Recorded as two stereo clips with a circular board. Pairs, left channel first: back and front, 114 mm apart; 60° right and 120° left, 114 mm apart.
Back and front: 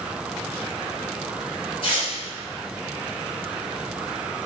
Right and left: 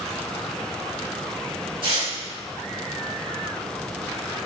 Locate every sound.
1.8 s tearing paper: 150° left, 1.3 m